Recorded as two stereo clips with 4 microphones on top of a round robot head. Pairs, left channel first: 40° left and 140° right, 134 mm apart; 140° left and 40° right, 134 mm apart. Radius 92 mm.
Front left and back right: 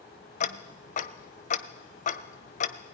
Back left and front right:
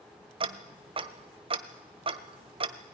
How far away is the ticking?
About 1.0 m.